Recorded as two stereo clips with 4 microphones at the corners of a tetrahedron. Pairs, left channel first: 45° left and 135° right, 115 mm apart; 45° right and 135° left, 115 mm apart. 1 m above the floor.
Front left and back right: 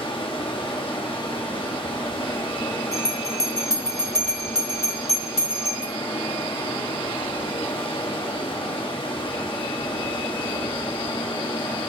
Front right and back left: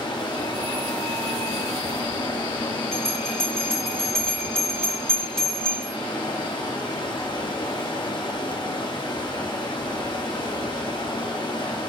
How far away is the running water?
About 1.5 m.